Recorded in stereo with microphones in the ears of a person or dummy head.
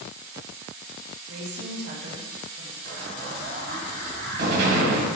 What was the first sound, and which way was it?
A woman speaking, 50° right (ahead or behind).